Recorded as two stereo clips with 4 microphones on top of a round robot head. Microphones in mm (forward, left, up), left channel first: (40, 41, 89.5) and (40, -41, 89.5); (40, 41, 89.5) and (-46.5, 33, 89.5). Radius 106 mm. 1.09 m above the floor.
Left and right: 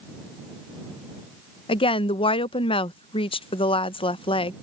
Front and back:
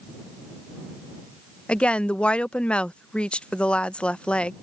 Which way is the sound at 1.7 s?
85° left.